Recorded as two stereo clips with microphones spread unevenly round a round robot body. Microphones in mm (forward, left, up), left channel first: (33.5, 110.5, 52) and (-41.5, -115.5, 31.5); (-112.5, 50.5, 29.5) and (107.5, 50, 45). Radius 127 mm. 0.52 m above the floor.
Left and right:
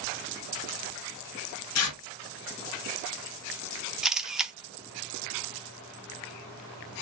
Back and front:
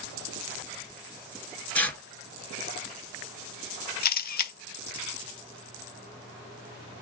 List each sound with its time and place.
1.8 s tearing paper: 95° left, 1.3 m
4.0 s a camera shutter: 170° left, 0.6 m